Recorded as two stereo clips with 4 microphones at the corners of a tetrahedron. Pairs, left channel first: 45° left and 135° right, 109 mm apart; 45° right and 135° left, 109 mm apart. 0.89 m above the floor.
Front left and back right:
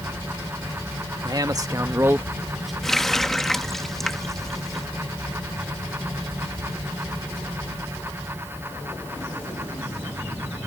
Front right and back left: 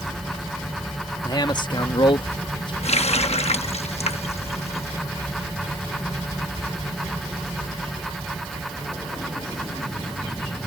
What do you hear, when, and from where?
1.2 s a man speaking: 90° right; by 2.7 s 45° right
2.8 s a running tap: 40° right